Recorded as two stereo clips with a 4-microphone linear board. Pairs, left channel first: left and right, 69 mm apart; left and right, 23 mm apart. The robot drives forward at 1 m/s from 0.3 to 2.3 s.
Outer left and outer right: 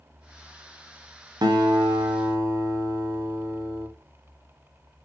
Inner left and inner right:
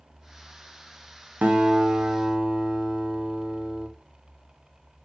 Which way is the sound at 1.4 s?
80° right.